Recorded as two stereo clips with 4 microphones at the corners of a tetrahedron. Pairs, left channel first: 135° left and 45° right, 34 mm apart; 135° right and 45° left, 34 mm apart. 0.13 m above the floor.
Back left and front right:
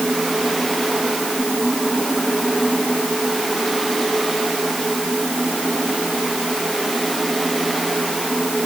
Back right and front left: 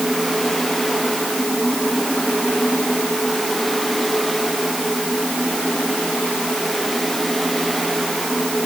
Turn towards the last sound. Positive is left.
No sound to turn to.